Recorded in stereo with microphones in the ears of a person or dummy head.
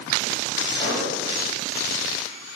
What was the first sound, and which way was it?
An explosion, 30° left (ahead or behind).